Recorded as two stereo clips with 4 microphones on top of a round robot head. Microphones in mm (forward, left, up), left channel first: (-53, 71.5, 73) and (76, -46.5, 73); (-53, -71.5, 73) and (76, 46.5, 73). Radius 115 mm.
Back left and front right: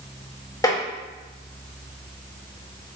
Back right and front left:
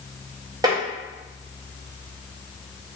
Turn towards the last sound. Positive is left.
turn(degrees=85)